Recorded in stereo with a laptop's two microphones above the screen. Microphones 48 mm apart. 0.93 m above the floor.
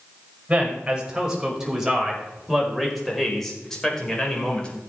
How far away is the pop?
I don't hear a pop.